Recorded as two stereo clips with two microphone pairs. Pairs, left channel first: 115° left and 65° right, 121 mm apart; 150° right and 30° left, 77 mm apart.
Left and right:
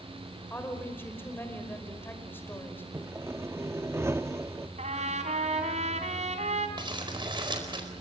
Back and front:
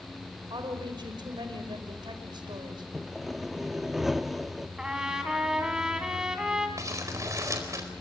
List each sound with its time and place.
0.5 s a woman speaking: 45° left, 5.5 m
2.9 s sawing: 50° right, 0.7 m
4.8 s a trumpet: 50° right, 3 m
6.8 s crumpling: 15° right, 4.5 m